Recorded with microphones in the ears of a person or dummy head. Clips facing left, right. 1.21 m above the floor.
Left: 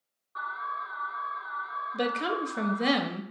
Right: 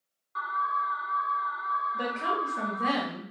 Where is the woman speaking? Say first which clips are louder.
Left 5 dB; 50° left (ahead or behind), 0.6 m.